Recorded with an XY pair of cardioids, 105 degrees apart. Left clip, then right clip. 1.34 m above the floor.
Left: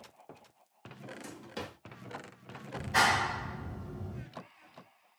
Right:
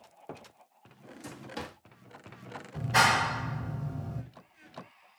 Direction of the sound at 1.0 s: Straight ahead.